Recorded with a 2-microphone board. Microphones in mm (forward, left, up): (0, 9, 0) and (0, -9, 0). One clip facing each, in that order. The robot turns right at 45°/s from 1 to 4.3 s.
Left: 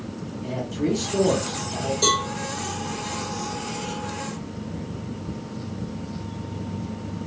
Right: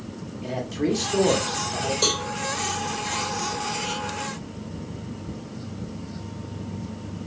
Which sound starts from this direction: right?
A man speaking, at 0.4 s.